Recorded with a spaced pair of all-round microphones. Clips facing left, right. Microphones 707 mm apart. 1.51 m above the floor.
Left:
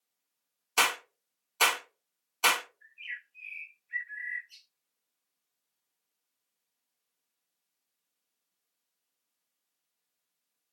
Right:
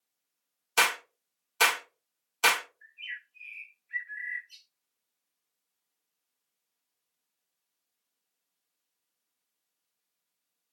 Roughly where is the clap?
Right.